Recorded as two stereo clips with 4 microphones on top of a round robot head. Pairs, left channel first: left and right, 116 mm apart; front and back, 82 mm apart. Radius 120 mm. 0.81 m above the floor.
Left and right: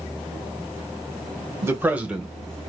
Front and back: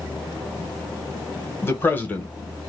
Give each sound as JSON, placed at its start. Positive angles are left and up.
{"t": 1.6, "sound": "a man speaking", "azimuth_deg": -40, "distance_m": 1.1}